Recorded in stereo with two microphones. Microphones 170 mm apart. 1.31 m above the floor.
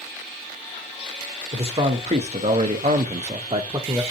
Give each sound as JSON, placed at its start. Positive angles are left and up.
{"t": 1.5, "sound": "a man speaking", "side_deg": -35, "distance_m": 1.0}